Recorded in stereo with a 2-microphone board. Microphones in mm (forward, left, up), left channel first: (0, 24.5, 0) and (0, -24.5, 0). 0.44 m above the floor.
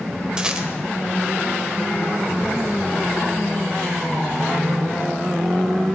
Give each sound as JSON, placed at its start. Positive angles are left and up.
{"t": 0.4, "sound": "a rattle", "side_deg": -20, "distance_m": 1.3}